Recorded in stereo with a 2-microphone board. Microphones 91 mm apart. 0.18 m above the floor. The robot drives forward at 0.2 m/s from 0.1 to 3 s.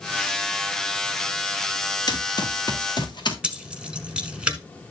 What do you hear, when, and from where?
2.1 s running footsteps: 50° left (ahead or behind), 2 m; by 3.3 s 55° left (ahead or behind), 2.5 m
3.4 s keys jangling: 10° right (ahead or behind), 1.2 m